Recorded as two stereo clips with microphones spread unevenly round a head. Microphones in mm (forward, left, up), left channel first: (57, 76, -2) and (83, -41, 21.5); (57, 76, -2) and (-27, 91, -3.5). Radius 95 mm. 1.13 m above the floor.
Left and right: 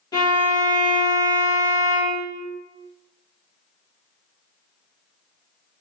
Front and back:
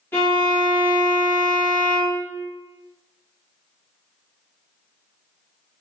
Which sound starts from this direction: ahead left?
A violin, at 0.1 s.